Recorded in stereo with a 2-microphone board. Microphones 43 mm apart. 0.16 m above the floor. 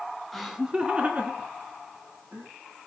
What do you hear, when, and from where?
0.3 s laughter: centre (ahead or behind), 1.3 m; by 2.5 s 55° right (ahead or behind), 3.5 m